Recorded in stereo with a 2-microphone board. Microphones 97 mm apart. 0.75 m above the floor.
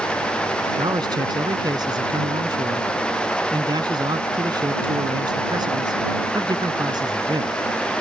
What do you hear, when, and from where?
0.8 s a man speaking: 50° right (ahead or behind)